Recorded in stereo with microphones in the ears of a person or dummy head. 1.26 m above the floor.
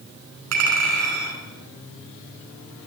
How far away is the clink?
About 4.5 m.